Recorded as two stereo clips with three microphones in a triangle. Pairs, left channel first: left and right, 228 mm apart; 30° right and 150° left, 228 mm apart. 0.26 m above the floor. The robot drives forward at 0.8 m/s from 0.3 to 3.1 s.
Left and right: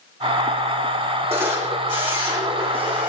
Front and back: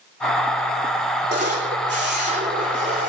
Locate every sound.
1.3 s a camera shutter: 165° right, 9 m; by 3.1 s 170° right, 10.5 m